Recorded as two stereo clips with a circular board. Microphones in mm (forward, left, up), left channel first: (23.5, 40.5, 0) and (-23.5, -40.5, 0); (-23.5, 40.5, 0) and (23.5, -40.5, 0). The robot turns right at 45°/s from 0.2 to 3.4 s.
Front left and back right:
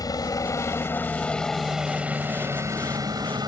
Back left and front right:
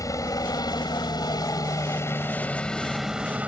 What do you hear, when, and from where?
0.0 s a helicopter: 85° left; by 3.5 s 130° right